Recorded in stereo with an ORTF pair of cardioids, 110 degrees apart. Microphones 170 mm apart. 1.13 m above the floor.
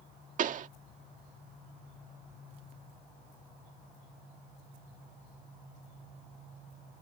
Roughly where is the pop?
Ahead right.